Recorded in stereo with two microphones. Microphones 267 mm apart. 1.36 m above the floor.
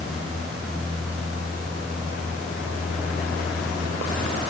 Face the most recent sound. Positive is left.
No sound to turn to.